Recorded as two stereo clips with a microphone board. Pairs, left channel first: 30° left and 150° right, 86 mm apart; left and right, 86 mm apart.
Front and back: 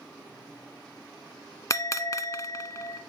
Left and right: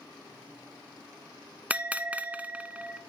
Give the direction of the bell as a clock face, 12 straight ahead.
1 o'clock.